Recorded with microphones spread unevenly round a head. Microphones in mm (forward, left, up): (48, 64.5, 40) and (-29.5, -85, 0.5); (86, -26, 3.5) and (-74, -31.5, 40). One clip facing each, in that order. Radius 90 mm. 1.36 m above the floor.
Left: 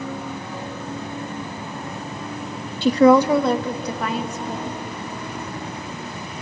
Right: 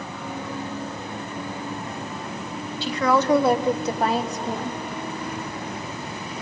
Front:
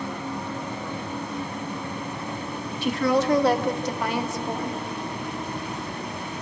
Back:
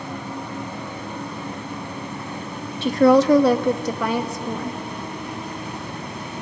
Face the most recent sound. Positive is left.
turn(degrees=-165)